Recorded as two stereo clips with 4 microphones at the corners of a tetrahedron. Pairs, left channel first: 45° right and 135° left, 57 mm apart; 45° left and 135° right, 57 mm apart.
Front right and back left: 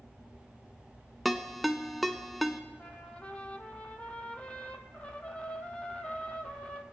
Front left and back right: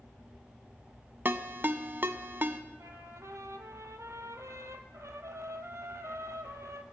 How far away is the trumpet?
About 0.8 m.